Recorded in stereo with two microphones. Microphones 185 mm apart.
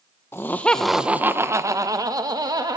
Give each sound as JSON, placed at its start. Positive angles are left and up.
{"t": 0.3, "sound": "laughter", "side_deg": 15, "distance_m": 0.7}